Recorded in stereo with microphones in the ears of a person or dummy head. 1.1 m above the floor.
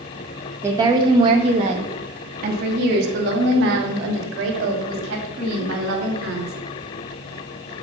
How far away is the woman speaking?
About 1.4 m.